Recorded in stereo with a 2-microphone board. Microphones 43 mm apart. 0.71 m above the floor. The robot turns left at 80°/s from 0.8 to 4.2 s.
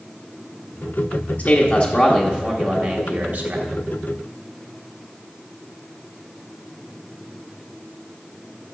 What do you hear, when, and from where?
1.4 s a man speaking: 110° left, 1.1 m; by 3.6 s 70° right, 1.1 m